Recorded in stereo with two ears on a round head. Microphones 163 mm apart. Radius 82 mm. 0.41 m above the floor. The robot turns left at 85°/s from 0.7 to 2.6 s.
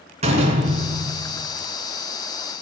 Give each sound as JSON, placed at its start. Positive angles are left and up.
{"t": 0.2, "sound": "a door slam", "azimuth_deg": -40, "distance_m": 2.5}